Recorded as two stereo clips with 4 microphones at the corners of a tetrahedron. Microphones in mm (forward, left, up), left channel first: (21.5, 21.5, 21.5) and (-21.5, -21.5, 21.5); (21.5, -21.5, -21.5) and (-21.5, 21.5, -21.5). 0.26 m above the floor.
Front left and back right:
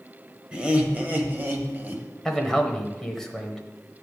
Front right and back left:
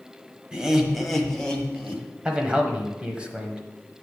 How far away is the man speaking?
About 1.0 m.